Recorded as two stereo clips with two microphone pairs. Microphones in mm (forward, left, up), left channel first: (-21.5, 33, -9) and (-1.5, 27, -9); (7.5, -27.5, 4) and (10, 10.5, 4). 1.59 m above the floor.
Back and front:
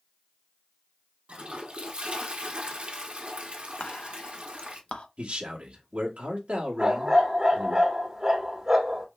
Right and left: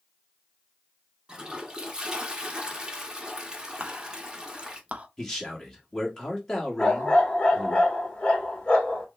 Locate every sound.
1.3 s a toilet flushing: 15° left, 0.9 m
3.8 s whispering: 140° left, 0.7 m
5.2 s a man speaking: 20° right, 1.4 m
6.8 s a dog barking: 40° right, 1.3 m